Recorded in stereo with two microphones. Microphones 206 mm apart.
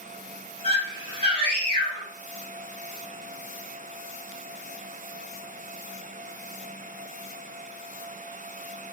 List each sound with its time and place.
0.6 s a scream: 25° right (ahead or behind), 1.8 m